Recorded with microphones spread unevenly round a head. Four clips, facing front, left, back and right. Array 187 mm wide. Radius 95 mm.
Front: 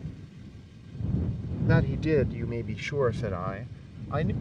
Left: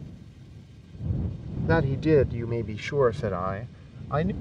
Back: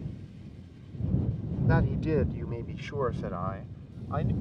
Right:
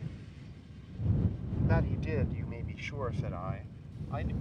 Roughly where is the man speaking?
Left.